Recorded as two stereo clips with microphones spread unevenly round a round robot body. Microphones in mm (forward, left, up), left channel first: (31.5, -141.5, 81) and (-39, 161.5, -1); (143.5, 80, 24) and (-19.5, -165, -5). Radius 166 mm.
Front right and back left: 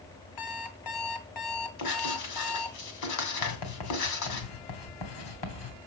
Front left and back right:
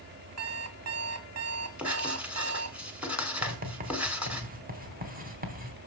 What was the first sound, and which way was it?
An alarm clock, 90° right.